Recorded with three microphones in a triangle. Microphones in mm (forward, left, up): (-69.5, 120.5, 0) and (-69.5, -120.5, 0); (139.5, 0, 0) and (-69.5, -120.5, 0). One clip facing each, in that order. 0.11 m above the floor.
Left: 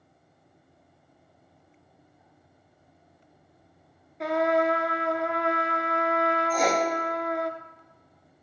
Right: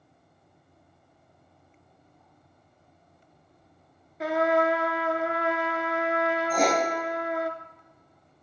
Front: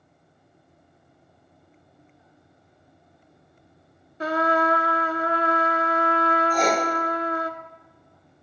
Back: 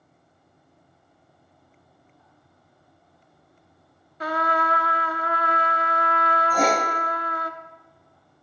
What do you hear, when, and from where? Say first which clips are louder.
4.2 s a trumpet: even, front 4 dB; 5° right, 0.5 m
6.5 s writing: right 2 dB, back 3 dB; 120° right, 3.5 m